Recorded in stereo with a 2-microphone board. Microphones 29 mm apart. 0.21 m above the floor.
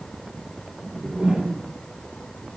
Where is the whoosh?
35° right (ahead or behind), 2.5 m.